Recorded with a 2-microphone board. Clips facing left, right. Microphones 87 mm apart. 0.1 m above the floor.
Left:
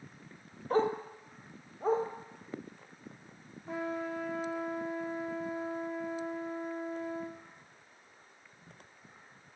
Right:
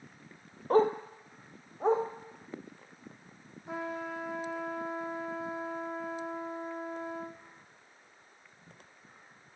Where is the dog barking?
45° right (ahead or behind), 1.0 m; by 2.0 s 70° right (ahead or behind), 2.5 m.